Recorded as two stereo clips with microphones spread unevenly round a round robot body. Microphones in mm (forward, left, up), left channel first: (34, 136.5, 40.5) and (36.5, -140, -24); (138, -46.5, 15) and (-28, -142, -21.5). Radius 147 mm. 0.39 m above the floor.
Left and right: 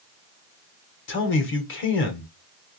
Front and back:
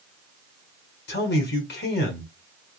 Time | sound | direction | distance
1.1 | a man speaking | 50° left | 1.3 m